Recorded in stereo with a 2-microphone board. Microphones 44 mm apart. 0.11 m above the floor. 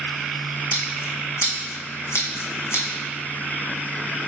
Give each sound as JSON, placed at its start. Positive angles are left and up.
{"t": 0.7, "sound": "scissors", "side_deg": 80, "distance_m": 1.3}